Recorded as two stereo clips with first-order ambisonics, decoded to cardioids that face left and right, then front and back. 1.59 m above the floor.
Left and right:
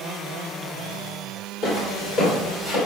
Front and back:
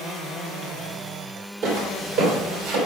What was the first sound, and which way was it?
Footsteps, 130° left.